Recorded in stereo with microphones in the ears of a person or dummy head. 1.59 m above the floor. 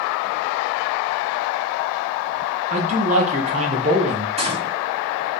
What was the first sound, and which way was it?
A man speaking, 45° right (ahead or behind).